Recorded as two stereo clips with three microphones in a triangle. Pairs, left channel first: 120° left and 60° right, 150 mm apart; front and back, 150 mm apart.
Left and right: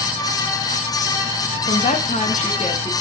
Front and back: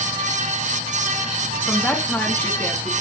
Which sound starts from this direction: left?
A woman speaking, at 1.7 s.